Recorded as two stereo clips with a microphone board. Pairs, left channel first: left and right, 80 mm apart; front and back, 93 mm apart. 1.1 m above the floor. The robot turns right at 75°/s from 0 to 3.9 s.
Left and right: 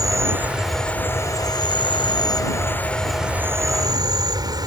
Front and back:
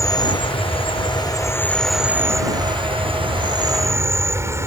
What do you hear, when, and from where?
0.0 s an insect: 55° right; by 4.7 s 120° right